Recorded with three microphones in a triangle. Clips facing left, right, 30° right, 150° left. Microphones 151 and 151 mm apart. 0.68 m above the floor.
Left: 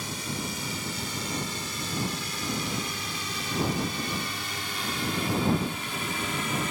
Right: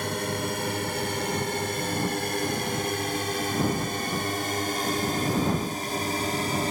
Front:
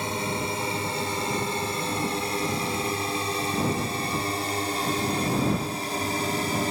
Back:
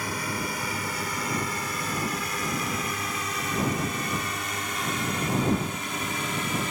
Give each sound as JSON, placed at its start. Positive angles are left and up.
{"t": 0.0, "sound": "a drone", "azimuth_deg": -90}